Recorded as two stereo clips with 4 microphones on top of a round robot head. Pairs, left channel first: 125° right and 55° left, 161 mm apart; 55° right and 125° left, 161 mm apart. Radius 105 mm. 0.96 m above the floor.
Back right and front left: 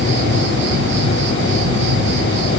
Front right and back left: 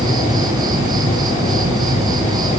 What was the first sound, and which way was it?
An insect, 60° left.